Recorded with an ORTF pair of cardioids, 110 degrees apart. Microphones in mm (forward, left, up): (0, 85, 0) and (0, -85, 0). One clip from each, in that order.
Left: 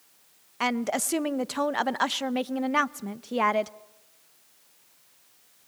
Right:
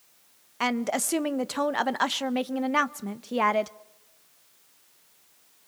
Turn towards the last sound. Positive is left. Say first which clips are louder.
# even
turn(degrees=-5)